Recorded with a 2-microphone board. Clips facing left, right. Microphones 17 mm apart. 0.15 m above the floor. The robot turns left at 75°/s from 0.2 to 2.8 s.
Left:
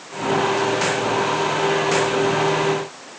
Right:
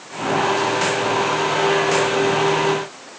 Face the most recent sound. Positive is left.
No sound to turn to.